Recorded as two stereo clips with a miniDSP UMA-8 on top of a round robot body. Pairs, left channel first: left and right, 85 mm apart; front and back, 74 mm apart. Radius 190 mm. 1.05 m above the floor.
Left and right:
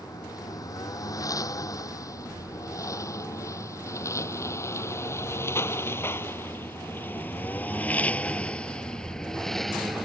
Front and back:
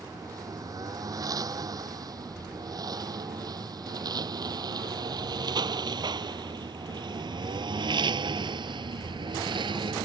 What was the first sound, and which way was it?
A lawn mower, 140° left.